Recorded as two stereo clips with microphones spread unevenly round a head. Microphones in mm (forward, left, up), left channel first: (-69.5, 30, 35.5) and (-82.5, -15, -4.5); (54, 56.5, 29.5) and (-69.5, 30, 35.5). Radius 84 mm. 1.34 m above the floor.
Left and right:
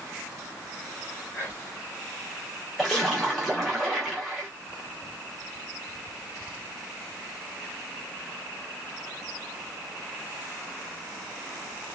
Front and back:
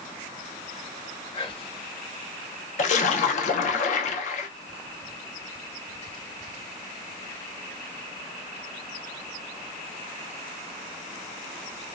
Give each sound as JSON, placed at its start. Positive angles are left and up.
{"t": 1.3, "sound": "whispering", "azimuth_deg": 65, "distance_m": 1.0}
{"t": 2.8, "sound": "a splash", "azimuth_deg": 30, "distance_m": 0.5}